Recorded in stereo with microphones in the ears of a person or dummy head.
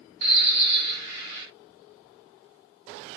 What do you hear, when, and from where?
0.2 s a bird: 60° right (ahead or behind), 8.5 m